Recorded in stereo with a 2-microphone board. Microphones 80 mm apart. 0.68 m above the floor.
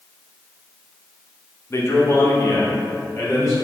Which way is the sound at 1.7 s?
35° left (ahead or behind).